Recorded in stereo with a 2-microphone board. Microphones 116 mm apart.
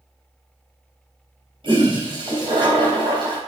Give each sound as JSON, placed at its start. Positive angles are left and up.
{"t": 1.6, "sound": "a toilet flushing", "side_deg": -50, "distance_m": 3.0}